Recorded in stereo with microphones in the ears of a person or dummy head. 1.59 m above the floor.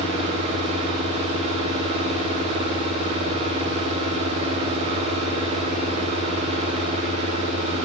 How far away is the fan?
About 8.5 m.